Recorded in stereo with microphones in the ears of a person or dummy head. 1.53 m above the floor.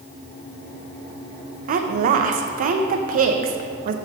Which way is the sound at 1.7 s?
45° right (ahead or behind).